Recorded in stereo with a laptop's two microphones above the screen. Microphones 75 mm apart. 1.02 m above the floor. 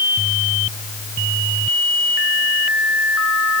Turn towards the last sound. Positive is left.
No sound to turn to.